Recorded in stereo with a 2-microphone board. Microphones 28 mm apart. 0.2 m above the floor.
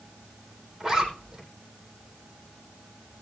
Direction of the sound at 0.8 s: 10° right (ahead or behind).